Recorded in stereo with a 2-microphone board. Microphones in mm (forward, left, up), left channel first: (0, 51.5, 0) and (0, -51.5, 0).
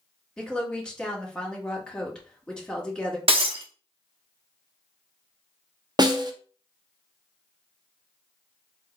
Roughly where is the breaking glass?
Right.